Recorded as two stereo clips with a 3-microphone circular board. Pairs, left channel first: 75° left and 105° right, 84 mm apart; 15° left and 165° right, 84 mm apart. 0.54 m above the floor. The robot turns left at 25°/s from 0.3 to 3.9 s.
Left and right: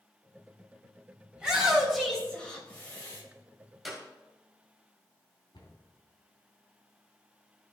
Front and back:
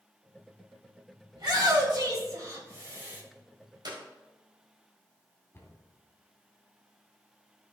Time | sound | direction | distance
1.4 | a shout | straight behind | 3 m
3.9 | a clap | 165° left | 1.9 m
5.5 | a cupboard door | 75° left | 2.5 m